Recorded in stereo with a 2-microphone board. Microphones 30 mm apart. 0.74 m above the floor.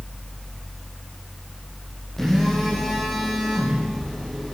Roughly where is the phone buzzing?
Centre.